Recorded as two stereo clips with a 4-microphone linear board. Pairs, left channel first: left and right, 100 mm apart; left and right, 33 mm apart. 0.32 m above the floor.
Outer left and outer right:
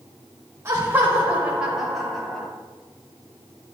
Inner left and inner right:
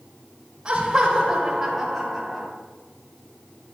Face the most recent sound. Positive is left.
turn(degrees=5)  # may be behind; listen again after turning